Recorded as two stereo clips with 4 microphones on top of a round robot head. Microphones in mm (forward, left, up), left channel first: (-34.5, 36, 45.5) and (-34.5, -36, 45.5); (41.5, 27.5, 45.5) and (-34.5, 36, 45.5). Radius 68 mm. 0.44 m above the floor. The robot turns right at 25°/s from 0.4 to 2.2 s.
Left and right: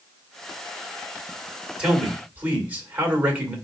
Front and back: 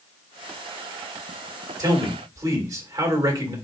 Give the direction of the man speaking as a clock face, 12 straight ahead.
5 o'clock.